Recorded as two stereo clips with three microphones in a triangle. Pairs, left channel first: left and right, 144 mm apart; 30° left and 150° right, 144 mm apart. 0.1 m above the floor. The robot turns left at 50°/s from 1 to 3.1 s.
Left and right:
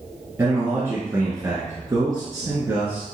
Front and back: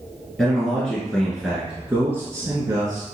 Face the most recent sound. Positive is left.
turn(degrees=-155)